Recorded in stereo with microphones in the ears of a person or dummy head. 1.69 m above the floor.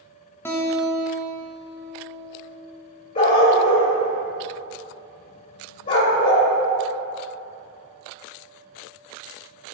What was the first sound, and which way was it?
A guitar, 15° left (ahead or behind).